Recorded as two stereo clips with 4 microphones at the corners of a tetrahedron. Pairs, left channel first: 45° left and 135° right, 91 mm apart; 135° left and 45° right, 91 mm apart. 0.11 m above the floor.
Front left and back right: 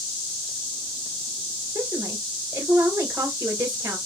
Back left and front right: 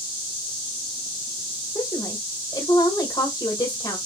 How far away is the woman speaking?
About 2 m.